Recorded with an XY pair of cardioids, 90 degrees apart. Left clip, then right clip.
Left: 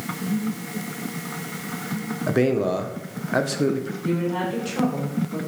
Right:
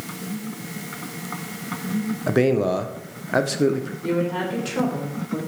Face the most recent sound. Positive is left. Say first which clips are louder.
# right 2 dB
turn(degrees=-35)